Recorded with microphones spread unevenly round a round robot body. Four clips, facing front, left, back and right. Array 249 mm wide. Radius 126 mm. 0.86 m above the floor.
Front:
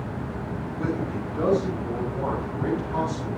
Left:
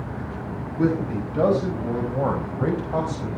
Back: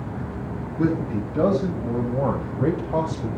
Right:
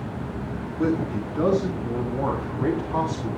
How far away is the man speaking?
About 6 m.